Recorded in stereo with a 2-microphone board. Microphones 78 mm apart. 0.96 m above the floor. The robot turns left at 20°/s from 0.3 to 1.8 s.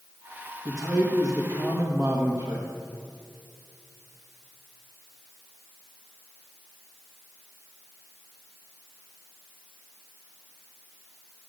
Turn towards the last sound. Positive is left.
turn(degrees=-45)  # may be behind; listen again after turning